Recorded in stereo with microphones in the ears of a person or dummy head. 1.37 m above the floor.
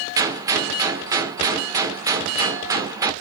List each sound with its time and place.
0.2 s a gunshot: 20° right (ahead or behind), 0.7 m